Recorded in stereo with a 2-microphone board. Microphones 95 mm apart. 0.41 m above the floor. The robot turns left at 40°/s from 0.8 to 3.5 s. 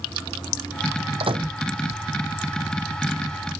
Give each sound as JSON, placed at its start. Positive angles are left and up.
{"t": 1.2, "sound": "a microwave", "side_deg": -70}